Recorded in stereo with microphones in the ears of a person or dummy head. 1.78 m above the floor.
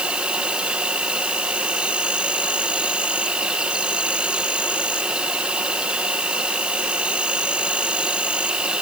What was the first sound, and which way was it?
An insect, 5° right (ahead or behind).